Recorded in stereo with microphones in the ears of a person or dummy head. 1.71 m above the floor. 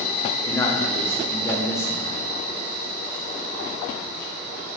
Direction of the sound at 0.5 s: 15° left (ahead or behind).